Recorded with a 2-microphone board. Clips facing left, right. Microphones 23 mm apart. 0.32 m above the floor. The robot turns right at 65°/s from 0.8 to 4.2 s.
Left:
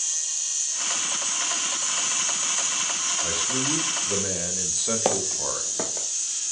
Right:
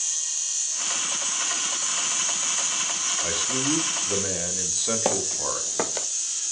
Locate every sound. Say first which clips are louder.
3.2 s a man speaking: even; 20° right (ahead or behind), 0.9 m; by 5.7 s 10° right (ahead or behind), 0.9 m
5.0 s footsteps: even; 15° left (ahead or behind), 0.6 m; by 6.1 s 45° right (ahead or behind), 0.6 m